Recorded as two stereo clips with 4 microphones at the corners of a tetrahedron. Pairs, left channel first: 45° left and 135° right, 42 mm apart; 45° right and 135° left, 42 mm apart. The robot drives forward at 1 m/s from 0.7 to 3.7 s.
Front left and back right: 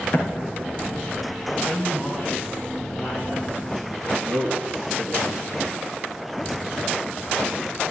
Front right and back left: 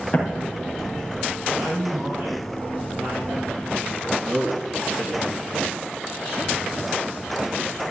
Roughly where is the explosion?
Ahead.